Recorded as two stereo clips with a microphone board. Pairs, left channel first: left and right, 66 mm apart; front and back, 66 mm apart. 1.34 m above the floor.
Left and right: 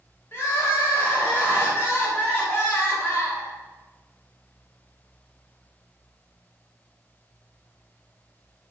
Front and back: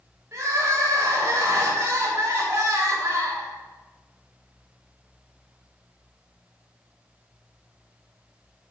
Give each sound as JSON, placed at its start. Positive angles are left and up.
{"t": 0.3, "sound": "crying", "azimuth_deg": 140, "distance_m": 4.5}